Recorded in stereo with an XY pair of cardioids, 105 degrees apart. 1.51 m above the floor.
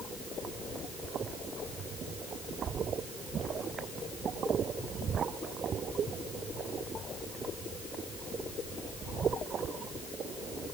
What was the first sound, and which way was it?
Only background noise.